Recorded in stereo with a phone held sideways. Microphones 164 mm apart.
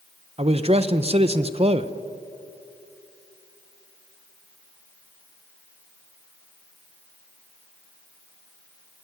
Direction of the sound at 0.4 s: 40° right (ahead or behind).